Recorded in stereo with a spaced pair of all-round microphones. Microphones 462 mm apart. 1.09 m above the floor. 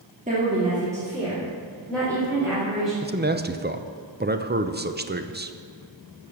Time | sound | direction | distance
0.3 | a woman speaking | 15° right (ahead or behind) | 2.5 m
3.0 | a man speaking | 20° right (ahead or behind) | 0.6 m